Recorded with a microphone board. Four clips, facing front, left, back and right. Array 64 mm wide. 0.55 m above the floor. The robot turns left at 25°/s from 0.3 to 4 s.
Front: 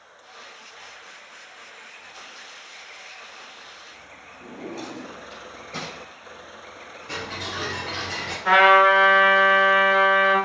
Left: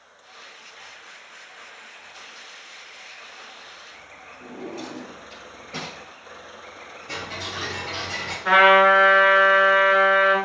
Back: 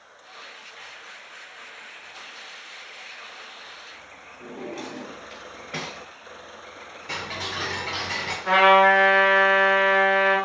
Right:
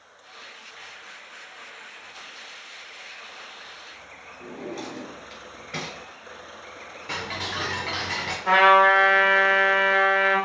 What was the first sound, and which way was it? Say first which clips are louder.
A drawer: even, even; 155° right.